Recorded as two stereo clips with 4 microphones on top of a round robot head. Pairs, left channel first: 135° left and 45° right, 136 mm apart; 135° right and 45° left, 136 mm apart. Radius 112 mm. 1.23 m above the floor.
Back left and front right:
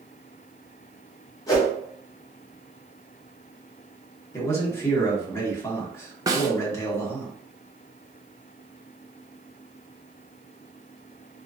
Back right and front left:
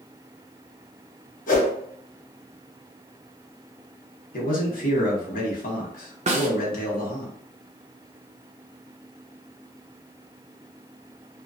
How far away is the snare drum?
About 0.8 m.